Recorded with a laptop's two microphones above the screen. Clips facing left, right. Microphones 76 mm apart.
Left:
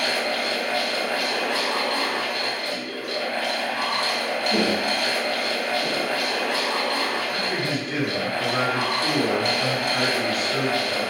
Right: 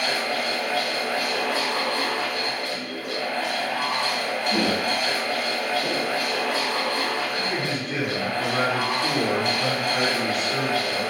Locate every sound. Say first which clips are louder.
0.0 s a fan: left 1 dB; 65° left (ahead or behind), 0.7 m
4.5 s footsteps: left 1 dB; 35° left (ahead or behind), 1.5 m; by 6.2 s centre (ahead or behind), 1.0 m
7.3 s a man speaking: left 1 dB; centre (ahead or behind), 1.0 m